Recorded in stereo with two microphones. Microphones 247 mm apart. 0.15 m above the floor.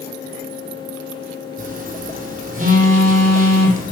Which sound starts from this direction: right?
A phone buzzing, at 1.6 s.